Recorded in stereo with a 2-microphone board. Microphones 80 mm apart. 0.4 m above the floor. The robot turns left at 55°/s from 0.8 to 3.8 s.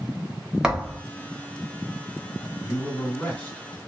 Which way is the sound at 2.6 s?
75° left.